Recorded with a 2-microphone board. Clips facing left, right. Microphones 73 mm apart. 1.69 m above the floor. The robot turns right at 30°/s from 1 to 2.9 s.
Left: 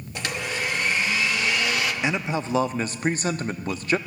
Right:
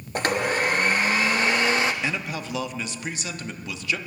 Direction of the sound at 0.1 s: 45° right (ahead or behind).